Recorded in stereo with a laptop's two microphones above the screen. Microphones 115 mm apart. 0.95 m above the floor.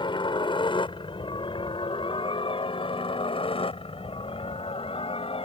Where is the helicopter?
45° left (ahead or behind); by 5.5 s 55° left (ahead or behind).